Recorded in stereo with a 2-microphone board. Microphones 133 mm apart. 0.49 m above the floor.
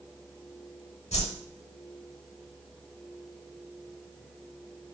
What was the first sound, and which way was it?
A whoosh, 55° left (ahead or behind).